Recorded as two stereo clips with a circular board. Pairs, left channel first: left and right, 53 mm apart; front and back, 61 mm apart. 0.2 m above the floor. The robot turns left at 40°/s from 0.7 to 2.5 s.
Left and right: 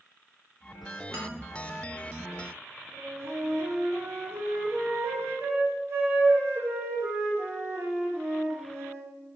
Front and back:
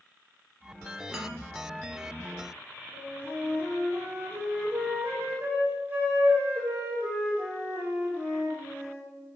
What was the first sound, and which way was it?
A man speaking, 100° right.